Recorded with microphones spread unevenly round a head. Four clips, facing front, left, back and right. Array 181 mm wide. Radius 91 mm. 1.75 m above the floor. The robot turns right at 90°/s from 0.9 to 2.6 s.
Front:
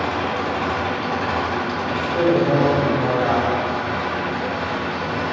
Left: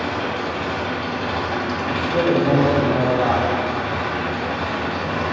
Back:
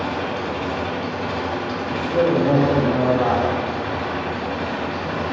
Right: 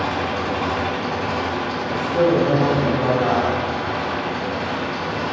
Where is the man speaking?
100° left, 3 m; by 3.6 s 165° left, 3 m.